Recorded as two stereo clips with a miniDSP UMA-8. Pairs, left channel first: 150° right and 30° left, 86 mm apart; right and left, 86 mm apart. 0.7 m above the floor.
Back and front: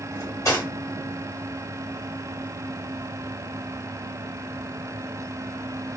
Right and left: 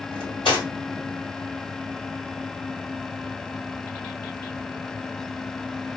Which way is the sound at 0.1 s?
95° right.